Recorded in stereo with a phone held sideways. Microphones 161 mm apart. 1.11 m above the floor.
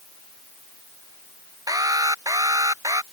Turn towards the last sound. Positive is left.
turn(degrees=-20)  # may be behind; listen again after turning